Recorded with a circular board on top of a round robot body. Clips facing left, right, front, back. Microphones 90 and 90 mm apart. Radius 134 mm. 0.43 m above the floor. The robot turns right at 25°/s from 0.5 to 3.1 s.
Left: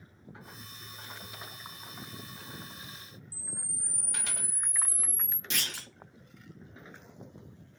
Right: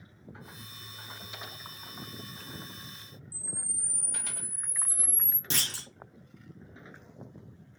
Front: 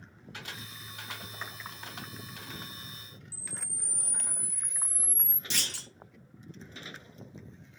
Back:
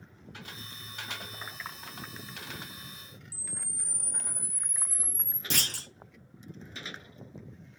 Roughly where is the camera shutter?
Ahead right.